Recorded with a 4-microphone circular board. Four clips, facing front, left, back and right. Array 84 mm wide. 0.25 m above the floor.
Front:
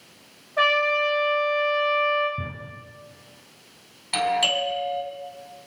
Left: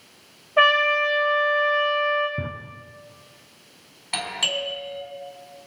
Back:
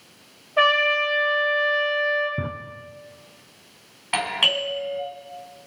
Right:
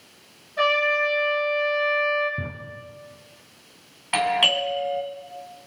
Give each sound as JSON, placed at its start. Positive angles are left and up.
{"t": 0.6, "sound": "a trumpet", "azimuth_deg": 110, "distance_m": 3.0}
{"t": 2.4, "sound": "a drawer", "azimuth_deg": 160, "distance_m": 1.0}
{"t": 4.1, "sound": "a doorbell", "azimuth_deg": -140, "distance_m": 2.5}